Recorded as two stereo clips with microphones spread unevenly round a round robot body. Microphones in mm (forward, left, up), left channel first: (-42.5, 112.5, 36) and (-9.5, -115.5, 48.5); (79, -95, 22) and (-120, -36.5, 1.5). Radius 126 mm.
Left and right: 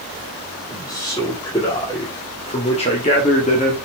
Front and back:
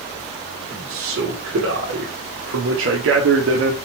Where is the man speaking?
170° left, 3 m; by 3.8 s 150° left, 1.6 m.